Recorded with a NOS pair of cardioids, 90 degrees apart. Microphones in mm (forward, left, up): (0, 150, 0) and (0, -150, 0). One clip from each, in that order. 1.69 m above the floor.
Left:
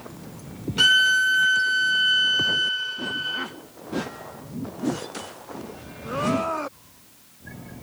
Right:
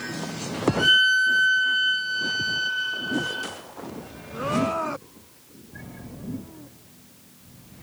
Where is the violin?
55° left, 0.6 m.